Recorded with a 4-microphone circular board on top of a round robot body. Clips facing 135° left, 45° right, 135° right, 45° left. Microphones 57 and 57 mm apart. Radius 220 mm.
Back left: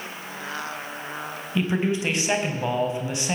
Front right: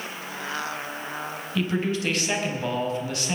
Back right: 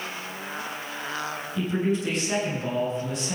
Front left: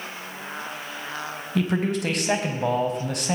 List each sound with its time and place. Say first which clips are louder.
1.6 s a man speaking: back left 2 dB, front left 2 dB; 65° left, 4 m